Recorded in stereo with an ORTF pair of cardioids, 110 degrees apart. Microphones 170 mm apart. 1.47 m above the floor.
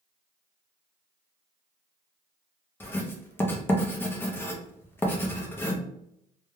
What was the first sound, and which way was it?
Writing, 10° left.